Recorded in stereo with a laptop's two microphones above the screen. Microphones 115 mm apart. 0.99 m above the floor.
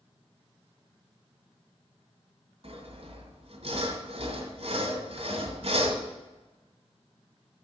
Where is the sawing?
65° right (ahead or behind), 1.7 m.